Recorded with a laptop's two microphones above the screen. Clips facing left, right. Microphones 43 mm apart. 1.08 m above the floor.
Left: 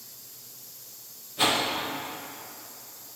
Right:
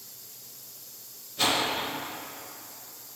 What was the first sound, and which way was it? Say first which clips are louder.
A whoosh: left 1 dB; 15° left (ahead or behind).